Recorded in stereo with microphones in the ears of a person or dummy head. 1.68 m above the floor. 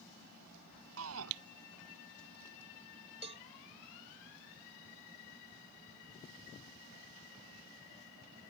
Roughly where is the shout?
Right.